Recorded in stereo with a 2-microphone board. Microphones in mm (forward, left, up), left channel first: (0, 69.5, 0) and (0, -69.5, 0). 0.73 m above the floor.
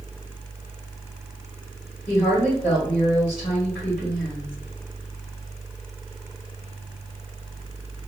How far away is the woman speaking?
About 1.7 m.